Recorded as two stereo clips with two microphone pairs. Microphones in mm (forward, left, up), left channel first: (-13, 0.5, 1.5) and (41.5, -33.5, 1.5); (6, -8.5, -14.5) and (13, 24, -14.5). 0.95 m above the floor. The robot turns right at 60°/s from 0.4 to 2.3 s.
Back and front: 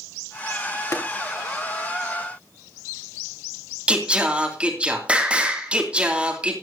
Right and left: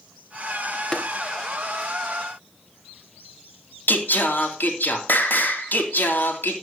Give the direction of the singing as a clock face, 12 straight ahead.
3 o'clock.